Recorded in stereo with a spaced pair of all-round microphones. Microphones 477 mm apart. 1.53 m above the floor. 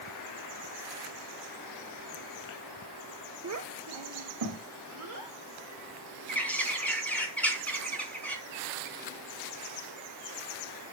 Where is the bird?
5° left (ahead or behind), 2.5 m.